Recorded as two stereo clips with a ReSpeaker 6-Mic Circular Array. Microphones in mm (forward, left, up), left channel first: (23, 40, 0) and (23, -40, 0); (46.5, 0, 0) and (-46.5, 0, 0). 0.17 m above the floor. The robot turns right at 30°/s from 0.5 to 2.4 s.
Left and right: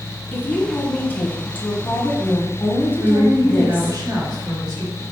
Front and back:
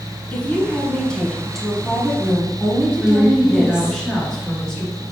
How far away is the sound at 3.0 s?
About 2.5 m.